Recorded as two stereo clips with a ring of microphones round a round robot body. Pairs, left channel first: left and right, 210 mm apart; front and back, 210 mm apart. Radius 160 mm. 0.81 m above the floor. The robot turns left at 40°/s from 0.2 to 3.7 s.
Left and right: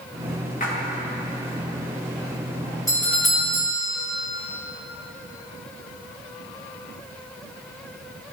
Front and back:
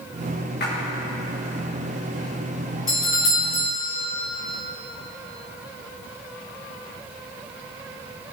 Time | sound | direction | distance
0.6 | a splash | 40° left | 2 m
2.9 | a doorbell | 15° left | 2.5 m